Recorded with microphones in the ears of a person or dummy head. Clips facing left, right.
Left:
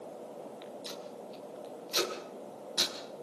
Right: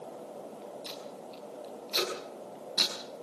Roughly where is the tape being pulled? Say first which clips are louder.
Even; centre.